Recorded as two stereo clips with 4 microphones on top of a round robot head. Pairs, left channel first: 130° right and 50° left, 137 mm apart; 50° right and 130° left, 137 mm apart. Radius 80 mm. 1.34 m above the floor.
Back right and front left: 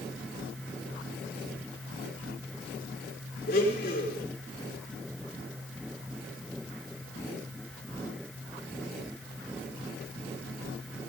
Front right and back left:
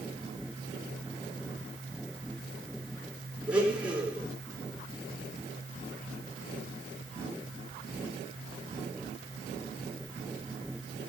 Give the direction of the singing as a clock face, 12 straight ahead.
I don't hear singing.